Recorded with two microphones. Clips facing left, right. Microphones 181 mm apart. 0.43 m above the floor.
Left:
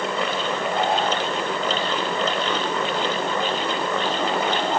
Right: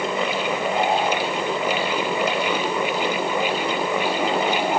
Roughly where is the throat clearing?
No throat clearing in this recording.